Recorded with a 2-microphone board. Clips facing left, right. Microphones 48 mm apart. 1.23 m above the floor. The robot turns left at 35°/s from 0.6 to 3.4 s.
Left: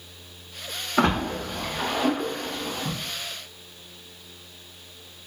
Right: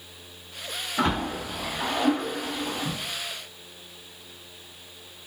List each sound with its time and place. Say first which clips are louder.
1.0 s a splash: left 3 dB; 65° left (ahead or behind), 0.7 m; by 3.0 s 5° right (ahead or behind), 0.7 m